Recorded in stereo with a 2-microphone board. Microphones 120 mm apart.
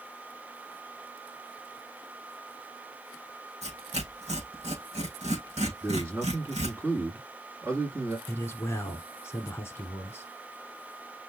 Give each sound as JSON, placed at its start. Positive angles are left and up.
{"t": 3.6, "sound": "tearing paper", "side_deg": -65, "distance_m": 4.0}
{"t": 5.8, "sound": "a man speaking", "side_deg": -20, "distance_m": 1.4}
{"t": 8.3, "sound": "a man speaking", "side_deg": 20, "distance_m": 1.2}